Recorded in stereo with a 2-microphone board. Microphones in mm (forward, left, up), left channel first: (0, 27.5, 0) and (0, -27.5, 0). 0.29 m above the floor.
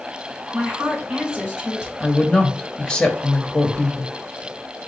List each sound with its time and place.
0.5 s a woman speaking: 20° right (ahead or behind), 3 m
2.0 s a woman speaking: 15° left (ahead or behind), 0.9 m